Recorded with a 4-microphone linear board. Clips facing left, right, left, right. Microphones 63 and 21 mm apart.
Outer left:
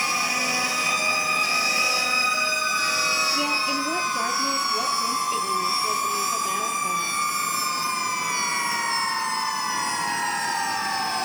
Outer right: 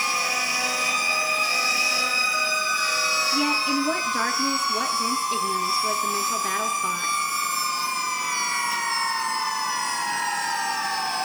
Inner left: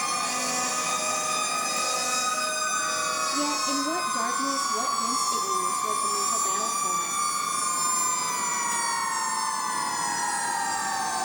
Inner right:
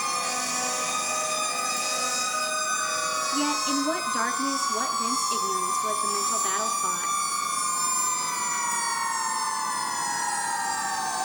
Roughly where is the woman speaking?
Right.